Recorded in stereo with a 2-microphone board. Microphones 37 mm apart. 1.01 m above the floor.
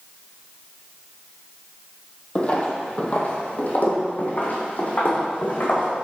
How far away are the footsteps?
About 1.2 m.